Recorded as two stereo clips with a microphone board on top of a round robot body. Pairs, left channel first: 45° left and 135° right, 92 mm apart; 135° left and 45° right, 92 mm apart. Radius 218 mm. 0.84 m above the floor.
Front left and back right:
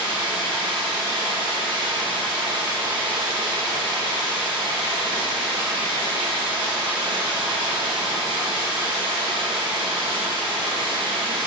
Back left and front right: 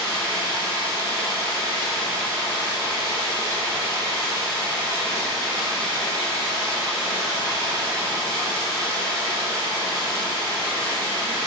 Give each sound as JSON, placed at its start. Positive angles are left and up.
{"t": 0.0, "sound": "running water", "azimuth_deg": -105, "distance_m": 4.0}